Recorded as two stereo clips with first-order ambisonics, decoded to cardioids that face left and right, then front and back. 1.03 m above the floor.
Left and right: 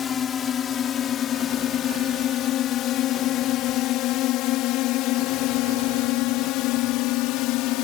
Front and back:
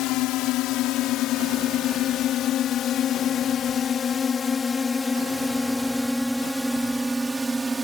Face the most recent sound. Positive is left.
turn(degrees=105)